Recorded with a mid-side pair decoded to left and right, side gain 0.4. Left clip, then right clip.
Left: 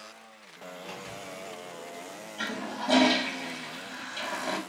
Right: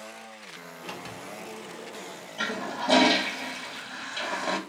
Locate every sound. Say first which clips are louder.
0.8 s a sliding door: right 2 dB; 55° right, 0.8 m
2.4 s a toilet flushing: right 4 dB; 30° right, 0.8 m